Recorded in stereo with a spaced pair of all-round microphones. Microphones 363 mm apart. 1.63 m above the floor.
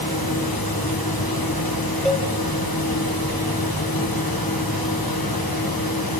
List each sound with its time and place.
0.0 s a fan: 70° left (ahead or behind), 1.7 m
2.0 s a cowbell: centre (ahead or behind), 0.9 m